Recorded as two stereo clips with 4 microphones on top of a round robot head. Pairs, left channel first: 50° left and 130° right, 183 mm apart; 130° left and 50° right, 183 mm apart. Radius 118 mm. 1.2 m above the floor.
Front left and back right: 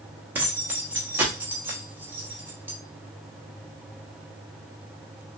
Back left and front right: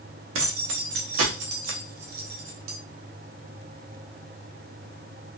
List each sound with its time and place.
0.3 s keys jangling: 50° right, 0.9 m